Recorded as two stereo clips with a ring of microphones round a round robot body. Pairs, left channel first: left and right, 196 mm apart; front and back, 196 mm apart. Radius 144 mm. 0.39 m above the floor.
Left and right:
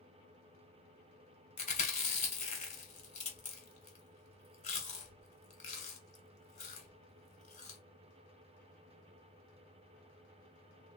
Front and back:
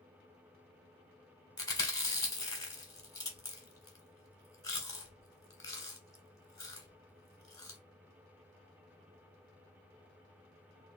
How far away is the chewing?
About 1.7 m.